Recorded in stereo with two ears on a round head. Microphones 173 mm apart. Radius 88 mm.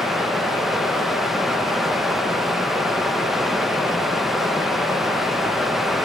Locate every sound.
0.0 s running water: centre (ahead or behind), 0.9 m